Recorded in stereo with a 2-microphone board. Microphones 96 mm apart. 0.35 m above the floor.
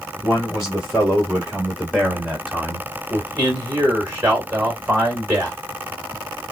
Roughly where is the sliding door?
No sliding door in this recording.